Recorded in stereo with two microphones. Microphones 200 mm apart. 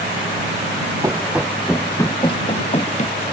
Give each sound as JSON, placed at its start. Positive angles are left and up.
{"t": 1.0, "sound": "running footsteps", "side_deg": -15}